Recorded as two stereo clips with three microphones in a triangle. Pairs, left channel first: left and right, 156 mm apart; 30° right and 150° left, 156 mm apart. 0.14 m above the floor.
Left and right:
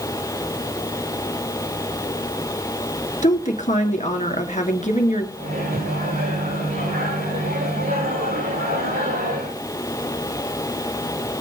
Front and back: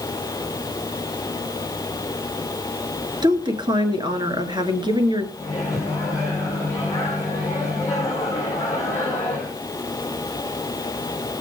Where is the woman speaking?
100° left, 2 m.